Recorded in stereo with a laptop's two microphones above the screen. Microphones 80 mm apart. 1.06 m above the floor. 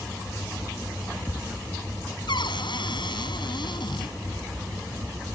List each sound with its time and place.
2.3 s a cupboard door: 80° left